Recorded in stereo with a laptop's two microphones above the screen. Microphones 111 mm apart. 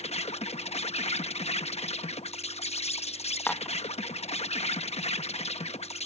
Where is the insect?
70° left (ahead or behind).